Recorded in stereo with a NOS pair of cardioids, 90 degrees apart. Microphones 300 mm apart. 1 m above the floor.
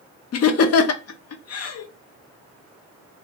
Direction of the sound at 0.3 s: 55° left.